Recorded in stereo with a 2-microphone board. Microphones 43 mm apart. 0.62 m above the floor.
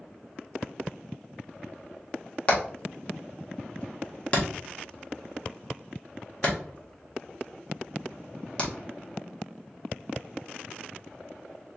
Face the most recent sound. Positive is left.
turn(degrees=30)  # may be behind; listen again after turning